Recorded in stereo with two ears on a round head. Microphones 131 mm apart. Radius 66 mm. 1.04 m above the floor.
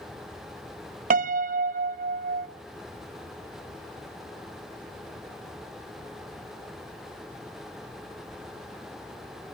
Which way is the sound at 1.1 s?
60° right (ahead or behind).